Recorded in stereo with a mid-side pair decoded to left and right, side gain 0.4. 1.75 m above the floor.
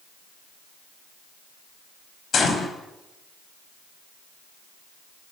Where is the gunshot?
60° left, 4.5 m.